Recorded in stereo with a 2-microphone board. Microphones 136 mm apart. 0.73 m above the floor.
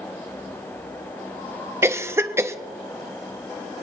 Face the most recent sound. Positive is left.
turn(degrees=-20)  # may be behind; listen again after turning